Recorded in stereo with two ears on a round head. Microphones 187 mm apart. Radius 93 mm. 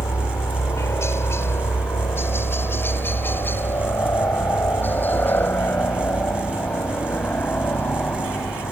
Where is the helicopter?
15° left (ahead or behind); by 8.7 s 5° left (ahead or behind).